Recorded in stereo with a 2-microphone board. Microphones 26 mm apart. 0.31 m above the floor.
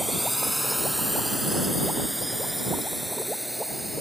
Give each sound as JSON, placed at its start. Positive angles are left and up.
{"t": 0.0, "sound": "a drone", "side_deg": -5}